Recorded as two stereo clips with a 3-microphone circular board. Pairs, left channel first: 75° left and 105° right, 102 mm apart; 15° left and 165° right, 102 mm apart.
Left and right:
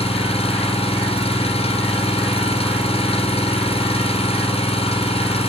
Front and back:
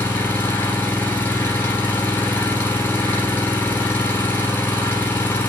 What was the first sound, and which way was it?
An engine running, 85° left.